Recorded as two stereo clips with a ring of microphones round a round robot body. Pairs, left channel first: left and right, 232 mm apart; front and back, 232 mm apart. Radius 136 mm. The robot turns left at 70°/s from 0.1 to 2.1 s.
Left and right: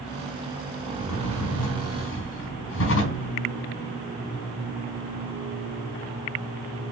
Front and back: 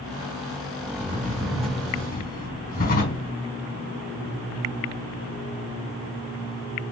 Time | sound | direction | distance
0.9 | a drawer | 140° left | 4 m